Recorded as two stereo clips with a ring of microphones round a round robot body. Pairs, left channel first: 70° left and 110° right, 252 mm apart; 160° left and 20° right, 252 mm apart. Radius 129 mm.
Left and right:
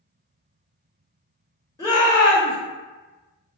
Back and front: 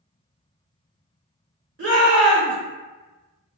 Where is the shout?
5° right, 1.5 m.